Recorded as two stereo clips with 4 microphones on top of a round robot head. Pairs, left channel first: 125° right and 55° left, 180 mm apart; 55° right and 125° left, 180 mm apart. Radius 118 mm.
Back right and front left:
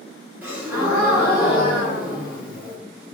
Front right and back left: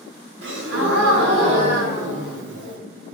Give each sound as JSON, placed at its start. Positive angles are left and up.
{"t": 0.4, "sound": "a gasp", "azimuth_deg": 135, "distance_m": 0.7}